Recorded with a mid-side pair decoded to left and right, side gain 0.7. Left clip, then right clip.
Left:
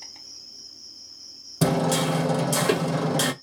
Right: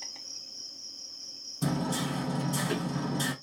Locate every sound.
0.0 s an insect: 5° right, 0.9 m
1.6 s hammering: 70° left, 0.8 m